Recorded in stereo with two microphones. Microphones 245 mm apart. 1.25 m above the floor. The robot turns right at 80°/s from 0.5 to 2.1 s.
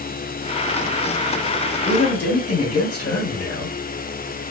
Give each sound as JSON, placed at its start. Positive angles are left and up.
{"t": 1.9, "sound": "a man speaking", "side_deg": 75, "distance_m": 1.6}